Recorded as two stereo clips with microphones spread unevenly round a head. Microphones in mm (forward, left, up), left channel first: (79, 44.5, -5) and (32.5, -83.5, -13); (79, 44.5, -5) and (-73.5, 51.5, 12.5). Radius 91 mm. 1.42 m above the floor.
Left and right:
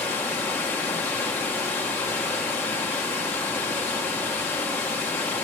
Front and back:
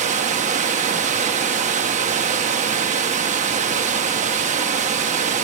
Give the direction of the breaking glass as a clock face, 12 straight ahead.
No breaking glass in this recording.